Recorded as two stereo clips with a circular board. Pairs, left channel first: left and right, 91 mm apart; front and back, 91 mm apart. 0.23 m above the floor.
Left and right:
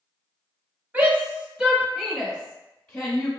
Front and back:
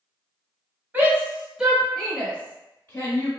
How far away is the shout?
About 1.2 m.